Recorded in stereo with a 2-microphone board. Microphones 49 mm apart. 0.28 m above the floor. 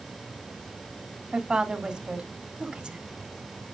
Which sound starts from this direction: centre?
A woman speaking, at 1.3 s.